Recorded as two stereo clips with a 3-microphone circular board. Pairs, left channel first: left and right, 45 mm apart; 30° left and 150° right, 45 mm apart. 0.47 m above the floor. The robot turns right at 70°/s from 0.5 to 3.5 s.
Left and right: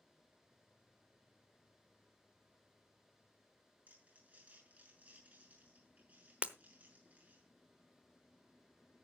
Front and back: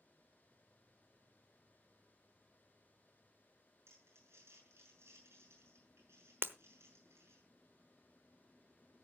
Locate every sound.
3.9 s crumpling: 145° right, 6.5 m
6.4 s breaking glass: 145° right, 0.9 m